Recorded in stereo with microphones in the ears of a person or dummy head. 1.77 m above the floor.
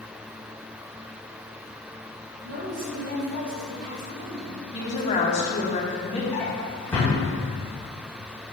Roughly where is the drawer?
Centre.